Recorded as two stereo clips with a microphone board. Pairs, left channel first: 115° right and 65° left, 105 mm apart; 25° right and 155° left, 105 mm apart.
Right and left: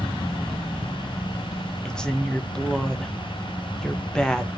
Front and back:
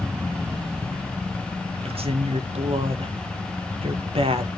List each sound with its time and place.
1.9 s a woman speaking: 165° left, 1.0 m